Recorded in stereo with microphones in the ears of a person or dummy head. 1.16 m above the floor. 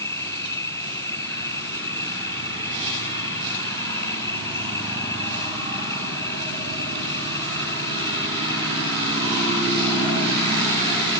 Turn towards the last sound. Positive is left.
turn(degrees=20)  # may be behind; listen again after turning